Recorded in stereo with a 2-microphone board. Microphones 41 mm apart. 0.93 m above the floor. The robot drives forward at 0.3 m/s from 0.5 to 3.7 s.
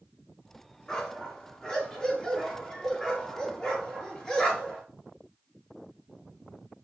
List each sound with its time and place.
0.9 s a dog barking: 20° left (ahead or behind), 3 m; by 4.8 s 15° left (ahead or behind), 3.5 m